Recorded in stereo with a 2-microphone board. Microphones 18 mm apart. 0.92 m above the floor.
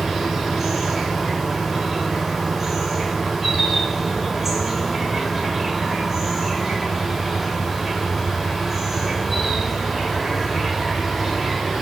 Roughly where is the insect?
Centre.